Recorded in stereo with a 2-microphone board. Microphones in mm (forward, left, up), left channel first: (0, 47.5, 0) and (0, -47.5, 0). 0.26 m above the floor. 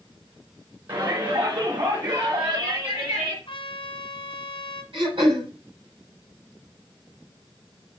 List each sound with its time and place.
0.9 s a shout: 50° right (ahead or behind), 2.5 m; by 3.4 s 70° right (ahead or behind), 3.5 m
3.5 s a trumpet: 65° left (ahead or behind), 1.5 m
4.9 s throat clearing: 70° right (ahead or behind), 6 m